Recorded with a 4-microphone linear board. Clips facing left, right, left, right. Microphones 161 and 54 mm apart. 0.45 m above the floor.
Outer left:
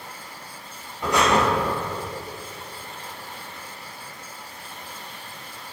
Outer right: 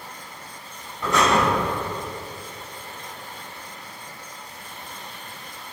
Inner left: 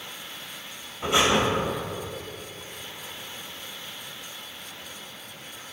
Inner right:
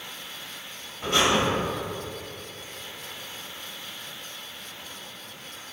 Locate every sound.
1.0 s breathing: 15° left (ahead or behind), 2 m